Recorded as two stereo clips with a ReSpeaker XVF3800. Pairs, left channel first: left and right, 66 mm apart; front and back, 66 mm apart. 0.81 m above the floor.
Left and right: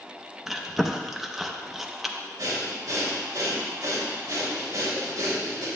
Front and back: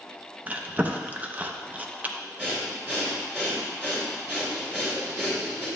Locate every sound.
0.5 s chewing: 175° right, 0.5 m
2.4 s breathing: 120° right, 3 m